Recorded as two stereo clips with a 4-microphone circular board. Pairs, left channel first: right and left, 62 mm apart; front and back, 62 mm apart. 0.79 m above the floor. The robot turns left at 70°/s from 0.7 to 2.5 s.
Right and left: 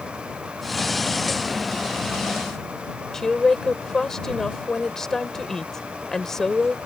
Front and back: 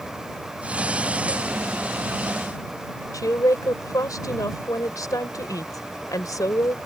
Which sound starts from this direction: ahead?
A woman speaking, at 3.1 s.